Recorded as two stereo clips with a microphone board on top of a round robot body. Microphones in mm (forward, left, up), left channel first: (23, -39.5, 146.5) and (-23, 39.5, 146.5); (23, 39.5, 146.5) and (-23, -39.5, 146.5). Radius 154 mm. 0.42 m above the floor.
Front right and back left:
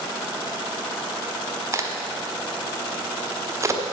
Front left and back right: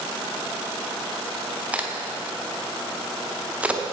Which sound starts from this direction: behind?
A crack, at 1.7 s.